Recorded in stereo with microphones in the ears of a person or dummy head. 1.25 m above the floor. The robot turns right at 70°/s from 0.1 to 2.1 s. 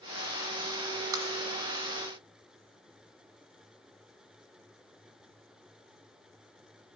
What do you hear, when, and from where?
1.1 s tapping: 15° right (ahead or behind), 1.3 m; by 1.3 s 10° right (ahead or behind), 1.3 m